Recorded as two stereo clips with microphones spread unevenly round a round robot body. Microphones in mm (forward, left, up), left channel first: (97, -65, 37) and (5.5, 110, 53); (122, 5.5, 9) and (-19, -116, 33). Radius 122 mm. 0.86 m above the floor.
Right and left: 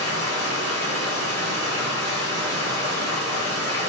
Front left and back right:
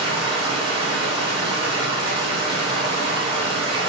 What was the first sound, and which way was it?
Running water, 80° right.